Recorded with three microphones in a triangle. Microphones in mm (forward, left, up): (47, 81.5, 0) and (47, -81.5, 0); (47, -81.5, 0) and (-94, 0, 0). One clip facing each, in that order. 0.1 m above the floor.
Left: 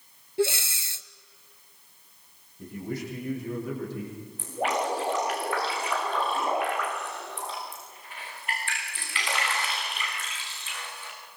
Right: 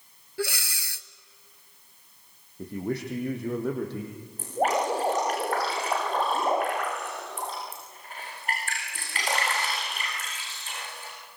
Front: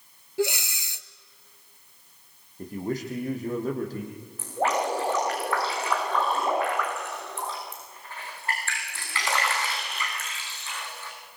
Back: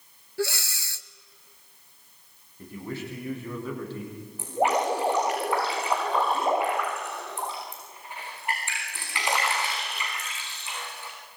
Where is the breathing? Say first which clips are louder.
Left 6 dB, front 3 dB; 35° left, 0.8 m.